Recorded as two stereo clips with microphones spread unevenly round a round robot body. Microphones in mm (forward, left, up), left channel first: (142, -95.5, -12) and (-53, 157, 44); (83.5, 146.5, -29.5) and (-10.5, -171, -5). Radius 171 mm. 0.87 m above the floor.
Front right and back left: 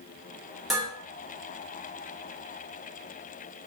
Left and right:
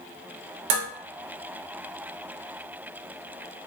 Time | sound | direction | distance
0.7 | dishes clattering | 140° right | 0.7 m